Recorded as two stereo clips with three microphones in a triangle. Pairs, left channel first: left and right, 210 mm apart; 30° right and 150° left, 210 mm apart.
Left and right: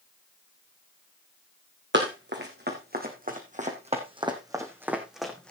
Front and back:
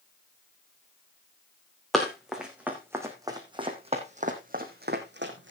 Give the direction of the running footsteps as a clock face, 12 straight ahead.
4 o'clock.